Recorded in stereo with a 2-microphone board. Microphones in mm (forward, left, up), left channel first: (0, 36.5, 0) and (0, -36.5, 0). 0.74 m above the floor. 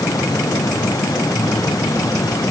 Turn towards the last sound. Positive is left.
No sound to turn to.